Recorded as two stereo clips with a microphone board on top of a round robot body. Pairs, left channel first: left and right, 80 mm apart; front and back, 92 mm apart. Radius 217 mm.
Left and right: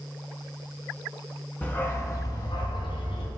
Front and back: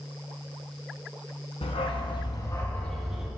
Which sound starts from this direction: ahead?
A dog barking, at 1.6 s.